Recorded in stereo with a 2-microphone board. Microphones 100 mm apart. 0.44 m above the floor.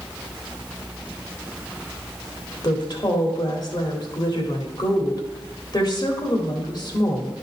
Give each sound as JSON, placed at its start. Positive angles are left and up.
{"t": 2.6, "sound": "a woman speaking", "side_deg": 50, "distance_m": 1.7}